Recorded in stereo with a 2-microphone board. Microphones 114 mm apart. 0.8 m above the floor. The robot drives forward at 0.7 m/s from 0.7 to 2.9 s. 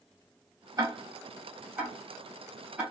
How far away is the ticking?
About 0.6 m.